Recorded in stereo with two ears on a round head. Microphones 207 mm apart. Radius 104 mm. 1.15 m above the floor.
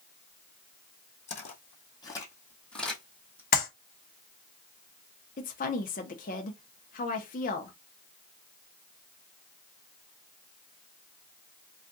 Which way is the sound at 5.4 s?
35° left (ahead or behind).